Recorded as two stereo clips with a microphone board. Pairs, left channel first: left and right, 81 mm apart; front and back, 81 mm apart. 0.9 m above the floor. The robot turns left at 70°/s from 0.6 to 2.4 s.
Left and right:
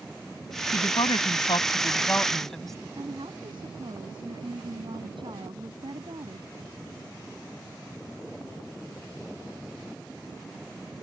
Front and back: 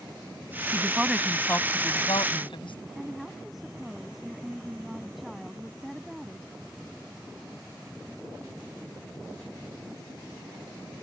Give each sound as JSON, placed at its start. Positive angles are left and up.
{"t": 0.7, "sound": "a woman speaking", "azimuth_deg": 120}
{"t": 3.0, "sound": "a woman speaking", "azimuth_deg": -90}